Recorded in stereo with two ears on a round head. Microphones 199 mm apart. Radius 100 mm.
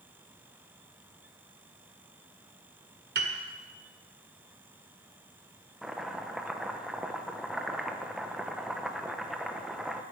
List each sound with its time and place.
3.1 s a piano: 50° right (ahead or behind), 1.5 m
5.8 s chopping: centre (ahead or behind), 0.8 m